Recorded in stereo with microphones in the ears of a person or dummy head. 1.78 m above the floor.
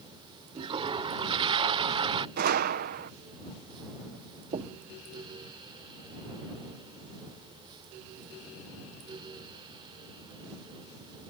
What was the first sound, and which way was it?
A toilet flushing, 30° right (ahead or behind).